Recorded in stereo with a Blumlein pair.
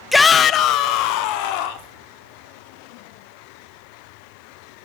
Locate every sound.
0.1 s a shout: 5° left, 0.6 m; by 1.9 s 45° left, 3 m